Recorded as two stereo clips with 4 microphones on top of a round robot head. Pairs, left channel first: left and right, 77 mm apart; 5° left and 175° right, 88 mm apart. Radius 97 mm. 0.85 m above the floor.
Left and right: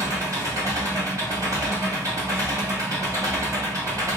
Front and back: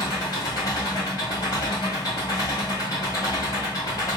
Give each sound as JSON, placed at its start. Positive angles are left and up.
{"t": 0.0, "sound": "an engine running", "azimuth_deg": -45, "distance_m": 1.4}